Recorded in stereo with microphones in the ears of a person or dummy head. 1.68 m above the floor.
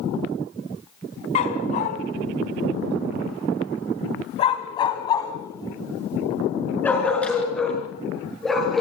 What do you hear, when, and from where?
1.4 s a dog barking: 40° left (ahead or behind), 4 m; by 8.8 s 5° left (ahead or behind), 8 m